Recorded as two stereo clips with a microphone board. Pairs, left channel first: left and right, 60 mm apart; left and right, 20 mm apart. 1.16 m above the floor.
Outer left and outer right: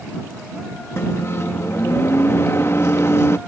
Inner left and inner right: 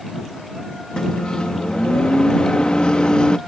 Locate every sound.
1.0 s a microwave: 50° left (ahead or behind)